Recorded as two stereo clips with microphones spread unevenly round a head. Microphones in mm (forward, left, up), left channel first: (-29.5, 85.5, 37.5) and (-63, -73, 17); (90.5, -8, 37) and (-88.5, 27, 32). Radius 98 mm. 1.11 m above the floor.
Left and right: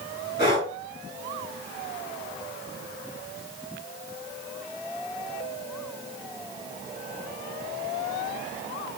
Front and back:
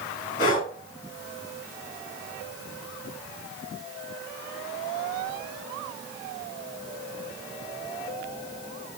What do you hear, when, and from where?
0.4 s breathing: 25° left, 4.5 m